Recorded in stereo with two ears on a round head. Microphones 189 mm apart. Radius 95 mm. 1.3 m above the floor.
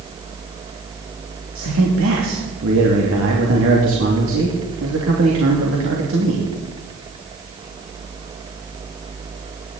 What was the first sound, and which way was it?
A man speaking, 75° right (ahead or behind).